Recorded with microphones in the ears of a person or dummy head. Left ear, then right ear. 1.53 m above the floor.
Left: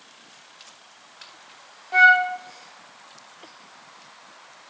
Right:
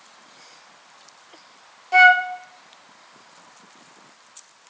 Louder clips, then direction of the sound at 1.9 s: Right 2 dB; 30° right (ahead or behind).